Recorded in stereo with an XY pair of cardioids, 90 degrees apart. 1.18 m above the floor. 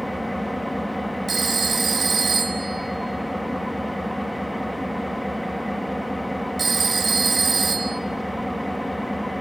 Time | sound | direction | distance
0.0 | an engine running | straight ahead | 1.4 m
1.3 | a phone ringing | 40° right | 1.4 m